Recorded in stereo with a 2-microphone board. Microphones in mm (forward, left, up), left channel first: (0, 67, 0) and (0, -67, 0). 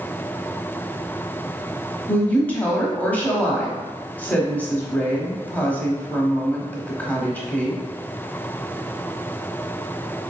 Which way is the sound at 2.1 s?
10° left (ahead or behind).